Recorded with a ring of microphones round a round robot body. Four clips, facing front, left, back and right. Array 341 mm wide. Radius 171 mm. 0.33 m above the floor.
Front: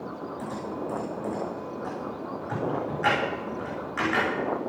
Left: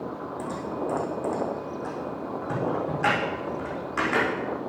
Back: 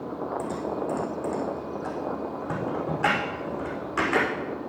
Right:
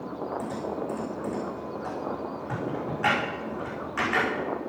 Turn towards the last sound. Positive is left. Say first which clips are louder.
# left 1 dB, back 3 dB
turn(degrees=150)